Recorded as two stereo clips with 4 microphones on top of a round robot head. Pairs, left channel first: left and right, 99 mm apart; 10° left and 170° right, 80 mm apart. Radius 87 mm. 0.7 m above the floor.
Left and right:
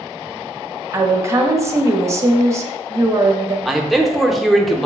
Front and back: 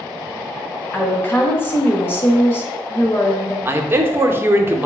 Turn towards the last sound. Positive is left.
turn(degrees=180)